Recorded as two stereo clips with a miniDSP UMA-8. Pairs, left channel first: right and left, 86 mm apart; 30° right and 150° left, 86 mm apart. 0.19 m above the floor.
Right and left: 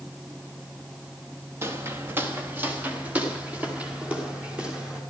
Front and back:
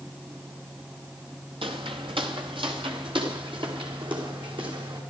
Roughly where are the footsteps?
Behind left.